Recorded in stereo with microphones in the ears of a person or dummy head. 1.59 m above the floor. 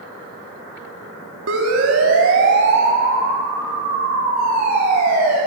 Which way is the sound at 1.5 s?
80° right.